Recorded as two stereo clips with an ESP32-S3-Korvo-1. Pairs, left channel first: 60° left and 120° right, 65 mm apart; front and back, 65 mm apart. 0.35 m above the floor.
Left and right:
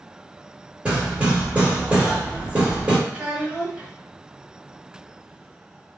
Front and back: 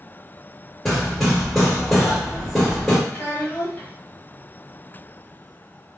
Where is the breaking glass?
I don't hear breaking glass.